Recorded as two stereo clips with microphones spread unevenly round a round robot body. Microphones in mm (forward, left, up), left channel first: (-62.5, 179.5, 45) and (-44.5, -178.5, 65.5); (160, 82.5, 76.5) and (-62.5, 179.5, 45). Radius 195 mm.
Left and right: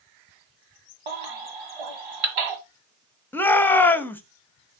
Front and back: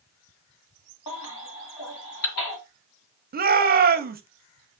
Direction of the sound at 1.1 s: 65° right.